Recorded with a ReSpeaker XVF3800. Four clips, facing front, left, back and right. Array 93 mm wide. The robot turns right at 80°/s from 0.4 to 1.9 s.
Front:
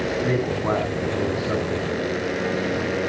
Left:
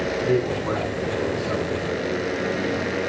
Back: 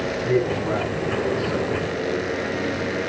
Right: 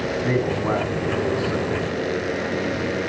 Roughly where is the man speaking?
Ahead right.